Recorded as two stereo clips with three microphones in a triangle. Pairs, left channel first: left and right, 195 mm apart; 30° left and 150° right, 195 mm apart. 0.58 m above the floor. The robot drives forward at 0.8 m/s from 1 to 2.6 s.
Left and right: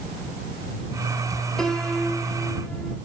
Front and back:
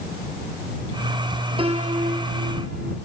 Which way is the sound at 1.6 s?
175° left.